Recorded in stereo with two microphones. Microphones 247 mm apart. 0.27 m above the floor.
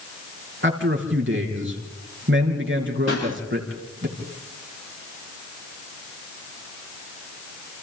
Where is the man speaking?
50° right (ahead or behind), 4.5 m.